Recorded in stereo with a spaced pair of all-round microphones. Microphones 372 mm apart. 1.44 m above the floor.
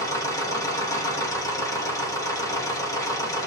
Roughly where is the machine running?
Centre.